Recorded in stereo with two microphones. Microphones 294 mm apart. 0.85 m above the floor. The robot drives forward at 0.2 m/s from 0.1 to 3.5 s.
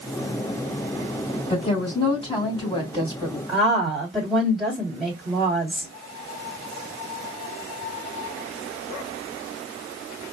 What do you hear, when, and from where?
1.5 s a woman speaking: 20° left (ahead or behind), 1.9 m; by 3.4 s 15° left (ahead or behind), 2 m
3.5 s a woman speaking: centre (ahead or behind), 2.5 m